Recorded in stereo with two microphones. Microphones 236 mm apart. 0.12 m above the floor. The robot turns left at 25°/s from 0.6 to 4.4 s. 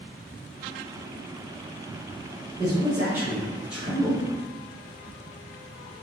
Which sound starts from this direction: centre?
A man speaking, at 2.6 s.